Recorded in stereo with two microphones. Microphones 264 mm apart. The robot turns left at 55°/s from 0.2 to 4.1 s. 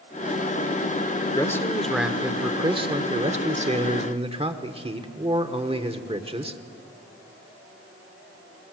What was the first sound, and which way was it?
A man speaking, 15° left (ahead or behind).